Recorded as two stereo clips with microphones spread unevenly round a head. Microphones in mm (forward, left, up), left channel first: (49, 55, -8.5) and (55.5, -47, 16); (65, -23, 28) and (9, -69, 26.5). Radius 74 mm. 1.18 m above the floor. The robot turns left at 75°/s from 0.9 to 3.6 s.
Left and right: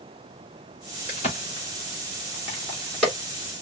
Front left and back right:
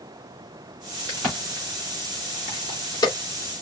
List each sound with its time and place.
1.1 s a crack: 155° left, 3 m; by 3.1 s straight ahead, 3 m